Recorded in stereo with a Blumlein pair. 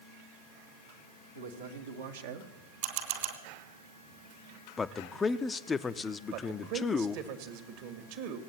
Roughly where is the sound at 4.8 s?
Ahead.